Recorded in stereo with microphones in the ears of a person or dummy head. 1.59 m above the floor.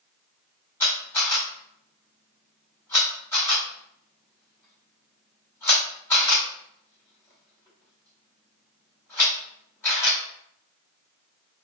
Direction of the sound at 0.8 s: 10° left (ahead or behind).